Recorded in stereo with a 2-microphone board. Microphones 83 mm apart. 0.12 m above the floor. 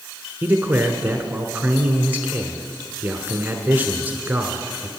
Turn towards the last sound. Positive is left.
turn(degrees=-20)  # may be behind; listen again after turning